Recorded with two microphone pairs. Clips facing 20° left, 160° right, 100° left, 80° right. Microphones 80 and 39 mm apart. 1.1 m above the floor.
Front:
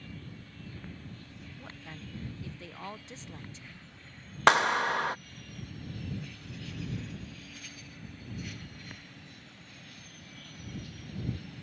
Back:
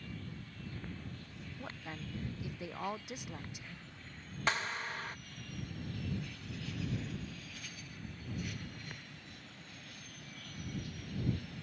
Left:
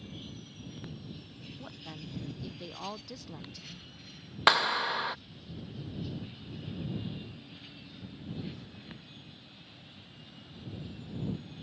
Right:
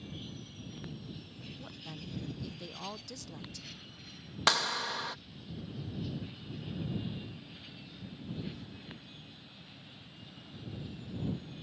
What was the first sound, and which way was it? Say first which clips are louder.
A woman speaking: back 2 dB, left 2 dB; 150° left.